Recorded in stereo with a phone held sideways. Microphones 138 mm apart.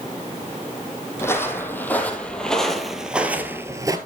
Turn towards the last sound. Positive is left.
turn(degrees=-25)  # may be behind; listen again after turning